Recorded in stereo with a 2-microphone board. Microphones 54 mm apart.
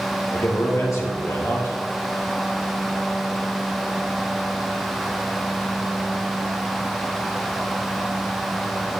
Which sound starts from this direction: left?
A man speaking, at 0.3 s.